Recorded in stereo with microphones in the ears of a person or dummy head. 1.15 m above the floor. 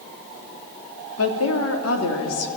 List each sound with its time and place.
1.2 s a woman speaking: 75° left (ahead or behind), 3 m